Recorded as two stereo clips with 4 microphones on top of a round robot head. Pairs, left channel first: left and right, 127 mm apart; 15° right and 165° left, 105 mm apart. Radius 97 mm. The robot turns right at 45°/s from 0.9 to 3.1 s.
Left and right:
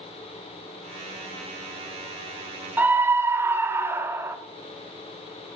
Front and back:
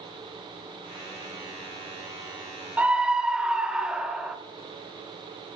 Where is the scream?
140° right, 0.8 m; by 4.4 s 125° right, 0.8 m.